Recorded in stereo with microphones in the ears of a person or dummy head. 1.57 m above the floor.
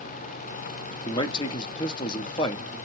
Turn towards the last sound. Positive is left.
turn(degrees=30)  # may be behind; listen again after turning